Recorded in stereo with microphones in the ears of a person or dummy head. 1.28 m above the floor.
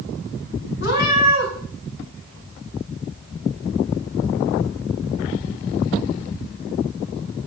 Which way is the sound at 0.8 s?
60° left (ahead or behind).